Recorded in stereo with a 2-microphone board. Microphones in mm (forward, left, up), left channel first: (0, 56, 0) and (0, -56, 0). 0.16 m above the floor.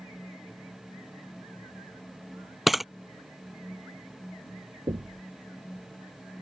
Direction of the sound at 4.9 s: 45° right (ahead or behind).